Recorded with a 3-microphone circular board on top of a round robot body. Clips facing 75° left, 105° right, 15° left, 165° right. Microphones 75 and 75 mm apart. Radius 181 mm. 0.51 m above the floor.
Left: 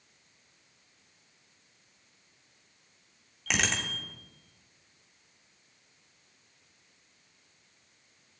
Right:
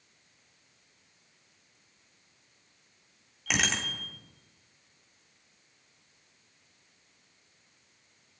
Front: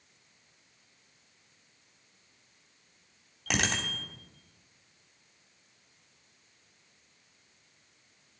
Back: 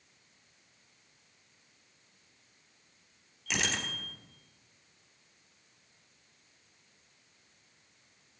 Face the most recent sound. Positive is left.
turn(degrees=-20)